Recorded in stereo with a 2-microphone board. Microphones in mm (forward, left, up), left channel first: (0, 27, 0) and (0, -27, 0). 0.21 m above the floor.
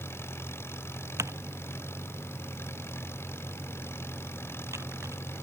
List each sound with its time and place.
0.0 s an engine running: 50° left (ahead or behind)
1.2 s typing on a keyboard: 65° right (ahead or behind)